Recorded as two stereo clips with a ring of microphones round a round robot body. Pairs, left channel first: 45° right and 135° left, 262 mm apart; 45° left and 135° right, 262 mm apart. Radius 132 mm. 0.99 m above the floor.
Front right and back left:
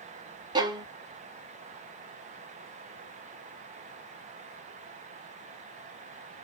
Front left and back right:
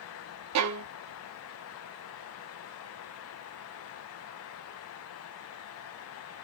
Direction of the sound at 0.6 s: 150° right.